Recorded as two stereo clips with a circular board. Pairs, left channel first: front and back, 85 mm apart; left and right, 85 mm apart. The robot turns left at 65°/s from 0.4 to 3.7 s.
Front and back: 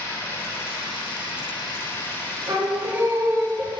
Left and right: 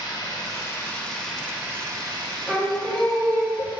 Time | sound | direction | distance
0.0 | running water | 60° left | 1.7 m
2.5 | singing | 165° right | 1.5 m